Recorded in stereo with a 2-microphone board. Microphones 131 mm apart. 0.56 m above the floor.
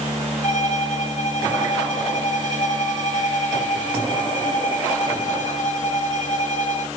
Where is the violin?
70° left (ahead or behind), 2.5 m.